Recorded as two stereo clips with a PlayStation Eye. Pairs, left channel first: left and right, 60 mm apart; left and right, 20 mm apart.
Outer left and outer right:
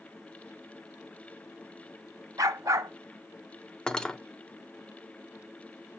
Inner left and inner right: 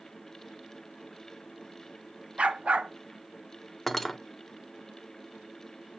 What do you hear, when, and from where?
2.4 s a dog barking: 70° right (ahead or behind), 0.8 m
3.9 s cutlery clinking: 15° left (ahead or behind), 0.6 m